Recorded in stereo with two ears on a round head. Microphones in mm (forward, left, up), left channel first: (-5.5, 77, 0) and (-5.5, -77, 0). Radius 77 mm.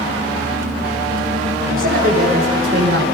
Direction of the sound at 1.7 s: 60° right (ahead or behind).